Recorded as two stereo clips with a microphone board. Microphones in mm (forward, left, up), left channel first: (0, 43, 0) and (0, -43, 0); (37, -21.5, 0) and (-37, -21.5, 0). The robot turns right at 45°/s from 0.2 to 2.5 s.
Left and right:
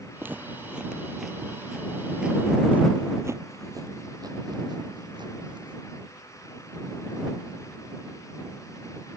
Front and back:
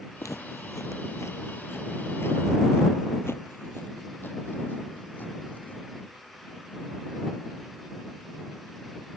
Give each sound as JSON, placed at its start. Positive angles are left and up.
{"t": 0.2, "sound": "footsteps", "azimuth_deg": -30}